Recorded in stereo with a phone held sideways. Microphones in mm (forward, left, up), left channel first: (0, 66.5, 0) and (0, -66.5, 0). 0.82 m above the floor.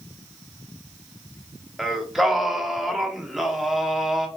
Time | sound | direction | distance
1.8 | singing | centre (ahead or behind) | 0.5 m